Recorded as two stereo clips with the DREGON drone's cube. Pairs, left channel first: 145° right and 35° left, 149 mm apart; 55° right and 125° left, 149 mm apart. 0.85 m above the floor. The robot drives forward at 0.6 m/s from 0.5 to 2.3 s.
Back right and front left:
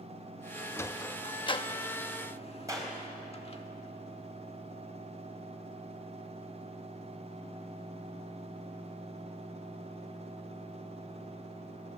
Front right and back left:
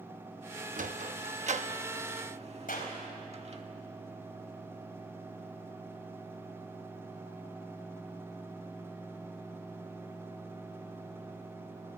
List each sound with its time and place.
0.8 s a sliding door: 140° left, 0.6 m; by 3.6 s 165° left, 1.4 m
2.7 s a clap: 35° right, 4 m